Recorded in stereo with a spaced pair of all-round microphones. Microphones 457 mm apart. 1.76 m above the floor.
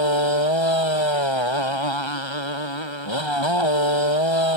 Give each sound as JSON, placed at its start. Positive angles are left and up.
{"t": 0.0, "sound": "a motorcycle", "side_deg": 75}